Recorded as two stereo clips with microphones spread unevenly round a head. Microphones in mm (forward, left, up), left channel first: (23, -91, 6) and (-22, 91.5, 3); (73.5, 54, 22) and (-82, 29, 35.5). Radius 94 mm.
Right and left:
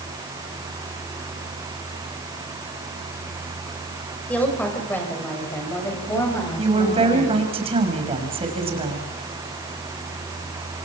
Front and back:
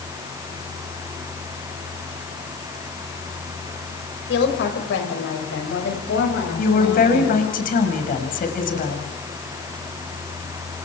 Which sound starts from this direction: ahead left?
A woman speaking, at 6.6 s.